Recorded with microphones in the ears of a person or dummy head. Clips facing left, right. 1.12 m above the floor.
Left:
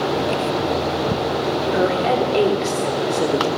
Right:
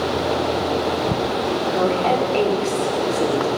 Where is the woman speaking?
20° left (ahead or behind), 2.5 m.